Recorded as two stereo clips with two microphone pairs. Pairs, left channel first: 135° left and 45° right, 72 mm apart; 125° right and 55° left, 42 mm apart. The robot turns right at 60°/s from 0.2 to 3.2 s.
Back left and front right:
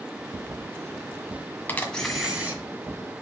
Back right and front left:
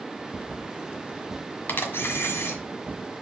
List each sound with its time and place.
1.7 s a camera shutter: 160° right, 1.6 m; by 2.6 s 105° right, 1.6 m